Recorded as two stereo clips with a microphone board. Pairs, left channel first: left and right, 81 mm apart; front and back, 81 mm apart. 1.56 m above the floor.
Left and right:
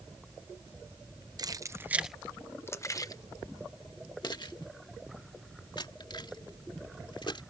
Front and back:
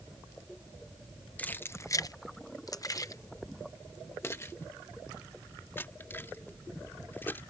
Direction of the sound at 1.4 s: 70° right.